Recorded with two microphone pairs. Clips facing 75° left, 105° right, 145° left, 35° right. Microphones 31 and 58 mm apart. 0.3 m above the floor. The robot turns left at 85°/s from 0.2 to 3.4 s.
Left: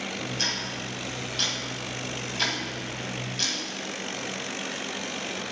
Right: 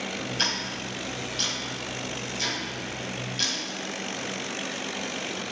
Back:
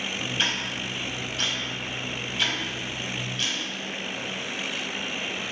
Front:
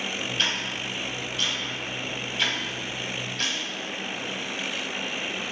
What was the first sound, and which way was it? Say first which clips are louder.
Ticking: right 2 dB, back 1 dB; 135° right.